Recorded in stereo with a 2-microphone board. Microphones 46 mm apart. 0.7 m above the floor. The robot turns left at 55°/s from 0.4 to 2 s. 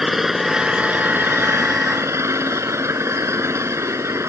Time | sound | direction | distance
0.0 | an engine running | 10° right | ?